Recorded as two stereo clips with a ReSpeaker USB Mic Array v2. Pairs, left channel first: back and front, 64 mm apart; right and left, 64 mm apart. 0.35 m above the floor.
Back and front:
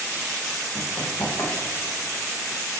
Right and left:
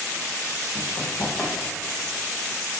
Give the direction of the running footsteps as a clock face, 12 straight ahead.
4 o'clock.